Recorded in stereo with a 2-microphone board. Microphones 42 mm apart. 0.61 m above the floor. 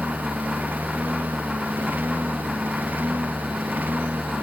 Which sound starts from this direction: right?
A lawn mower, at 0.0 s.